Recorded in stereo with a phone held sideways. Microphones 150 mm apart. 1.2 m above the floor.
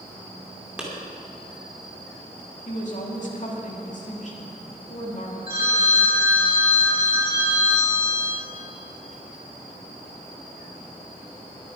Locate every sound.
0.8 s a clap: 5° right (ahead or behind), 3 m
2.6 s a woman speaking: 55° left (ahead or behind), 2.5 m
5.5 s a phone ringing: 85° left, 3.5 m